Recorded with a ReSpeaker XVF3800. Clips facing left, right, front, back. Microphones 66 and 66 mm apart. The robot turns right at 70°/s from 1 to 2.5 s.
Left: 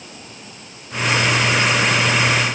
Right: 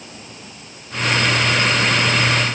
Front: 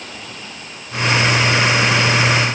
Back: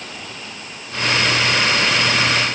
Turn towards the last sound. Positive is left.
No sound to turn to.